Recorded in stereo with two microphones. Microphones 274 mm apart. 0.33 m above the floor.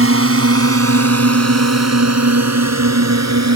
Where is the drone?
55° right (ahead or behind); by 3.6 s 75° right (ahead or behind).